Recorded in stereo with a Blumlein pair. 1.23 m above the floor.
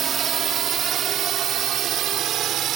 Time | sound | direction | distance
0.0 | a drone | 25° right | ?